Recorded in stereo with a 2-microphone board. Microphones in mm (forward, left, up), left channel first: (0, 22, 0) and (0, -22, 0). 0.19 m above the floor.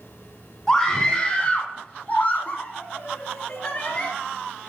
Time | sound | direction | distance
0.7 | a scream | 15° left (ahead or behind) | 2 m